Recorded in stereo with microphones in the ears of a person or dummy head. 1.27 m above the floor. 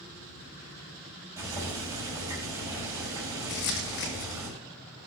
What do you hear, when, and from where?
1.4 s boiling: 20° right (ahead or behind), 5.5 m
3.5 s crumpling: 55° left (ahead or behind), 1.5 m